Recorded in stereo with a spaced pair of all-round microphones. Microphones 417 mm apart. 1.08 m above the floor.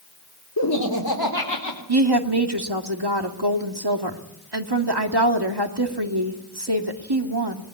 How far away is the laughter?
About 3.5 m.